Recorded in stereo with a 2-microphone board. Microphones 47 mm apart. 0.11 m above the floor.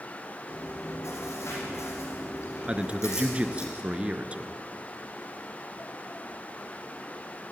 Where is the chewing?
70° left (ahead or behind), 5.5 m.